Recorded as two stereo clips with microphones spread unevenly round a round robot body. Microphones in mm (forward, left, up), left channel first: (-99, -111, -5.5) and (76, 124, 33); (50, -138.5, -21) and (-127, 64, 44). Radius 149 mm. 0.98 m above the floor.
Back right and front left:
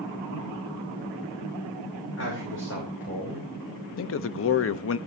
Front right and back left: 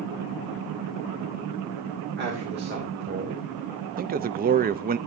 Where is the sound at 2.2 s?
175° right, 2.5 m.